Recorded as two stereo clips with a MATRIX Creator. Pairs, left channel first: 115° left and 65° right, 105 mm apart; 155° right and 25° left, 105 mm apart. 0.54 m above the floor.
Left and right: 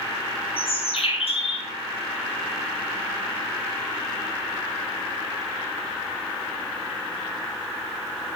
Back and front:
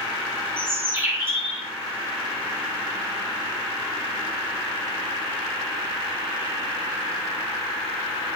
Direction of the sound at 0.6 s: 90° left.